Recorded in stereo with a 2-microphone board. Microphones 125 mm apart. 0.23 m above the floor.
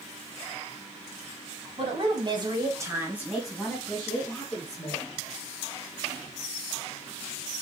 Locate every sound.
1.8 s a woman speaking: 50° right (ahead or behind), 1.4 m; by 5.1 s 20° left (ahead or behind), 2.5 m